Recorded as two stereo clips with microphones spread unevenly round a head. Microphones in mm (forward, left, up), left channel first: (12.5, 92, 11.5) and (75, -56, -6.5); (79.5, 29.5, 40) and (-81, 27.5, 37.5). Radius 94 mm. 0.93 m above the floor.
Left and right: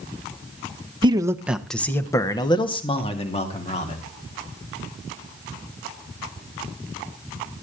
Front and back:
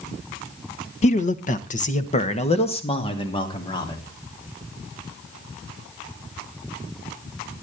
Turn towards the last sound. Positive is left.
turn(degrees=65)